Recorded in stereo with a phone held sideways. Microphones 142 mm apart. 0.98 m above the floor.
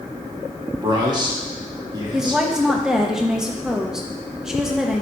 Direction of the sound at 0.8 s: 30° right (ahead or behind).